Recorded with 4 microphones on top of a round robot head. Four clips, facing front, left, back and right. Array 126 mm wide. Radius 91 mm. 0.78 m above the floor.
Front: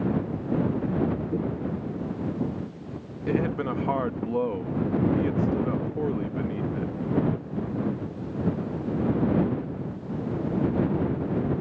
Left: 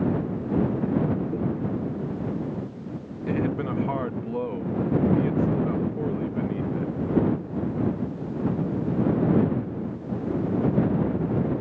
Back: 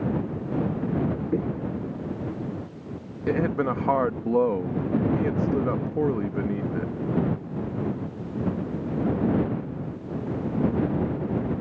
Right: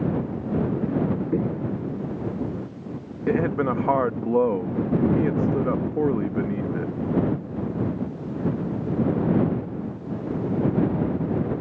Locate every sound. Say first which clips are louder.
1.3 s footsteps: right 2 dB, back 1 dB; 125° right; by 4.3 s 40° right
3.3 s a man speaking: right 4 dB, back 2 dB; 120° right